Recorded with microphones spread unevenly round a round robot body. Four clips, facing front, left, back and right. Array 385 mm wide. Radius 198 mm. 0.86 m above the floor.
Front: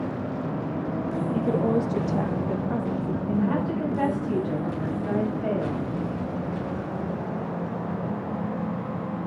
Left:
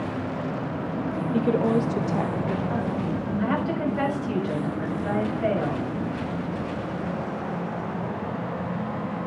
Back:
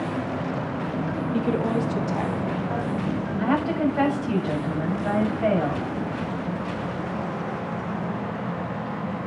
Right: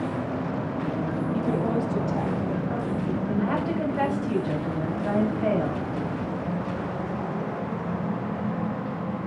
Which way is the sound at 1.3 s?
110° left.